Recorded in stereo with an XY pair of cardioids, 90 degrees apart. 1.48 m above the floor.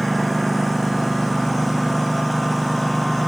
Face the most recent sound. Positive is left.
turn(degrees=-5)